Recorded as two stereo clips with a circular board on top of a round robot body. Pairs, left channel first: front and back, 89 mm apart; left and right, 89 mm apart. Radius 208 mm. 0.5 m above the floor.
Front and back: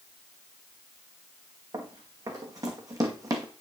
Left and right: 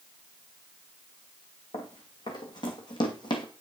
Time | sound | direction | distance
1.7 | running footsteps | 130° left | 2.5 m